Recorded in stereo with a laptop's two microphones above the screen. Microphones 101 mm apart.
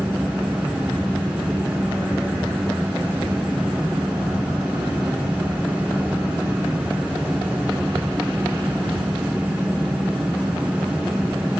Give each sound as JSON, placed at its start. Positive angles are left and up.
{"t": 0.0, "sound": "a fan", "side_deg": -15, "distance_m": 0.9}